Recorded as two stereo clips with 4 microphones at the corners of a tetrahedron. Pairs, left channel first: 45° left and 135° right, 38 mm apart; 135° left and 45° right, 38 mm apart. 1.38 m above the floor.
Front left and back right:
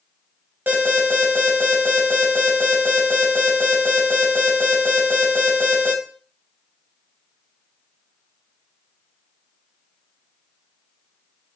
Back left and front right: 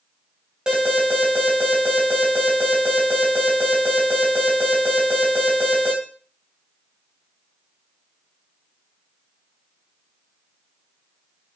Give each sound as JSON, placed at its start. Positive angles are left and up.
{"t": 0.7, "sound": "an alarm", "azimuth_deg": -110, "distance_m": 3.0}